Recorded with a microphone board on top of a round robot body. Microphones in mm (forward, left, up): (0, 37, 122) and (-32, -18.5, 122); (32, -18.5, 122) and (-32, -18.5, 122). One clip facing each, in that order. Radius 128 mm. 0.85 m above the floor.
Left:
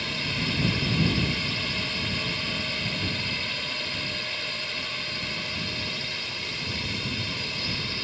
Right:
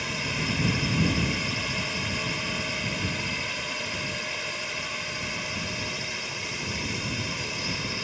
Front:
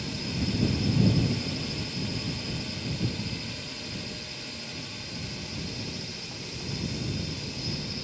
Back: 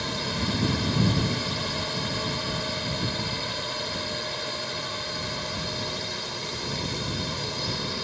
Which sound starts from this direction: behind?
A drone, at 0.0 s.